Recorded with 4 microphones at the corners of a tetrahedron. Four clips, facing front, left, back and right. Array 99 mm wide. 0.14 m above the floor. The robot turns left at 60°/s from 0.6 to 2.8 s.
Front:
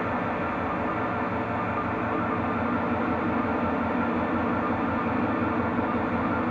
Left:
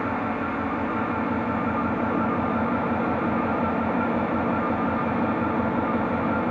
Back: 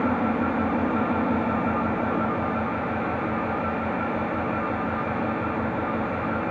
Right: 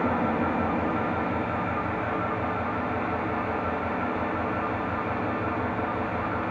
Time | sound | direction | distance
0.0 | an engine running | 145° right | 1.1 m